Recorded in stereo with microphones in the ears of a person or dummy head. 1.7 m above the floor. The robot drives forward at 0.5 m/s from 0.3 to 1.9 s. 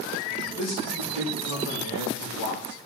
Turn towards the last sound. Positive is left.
turn(degrees=60)  # may be behind; listen again after turning